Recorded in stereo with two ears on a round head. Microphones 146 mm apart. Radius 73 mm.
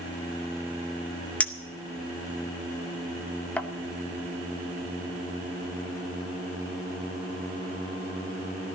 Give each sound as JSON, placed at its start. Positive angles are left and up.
{"t": 1.4, "sound": "a clink", "side_deg": 10, "distance_m": 0.7}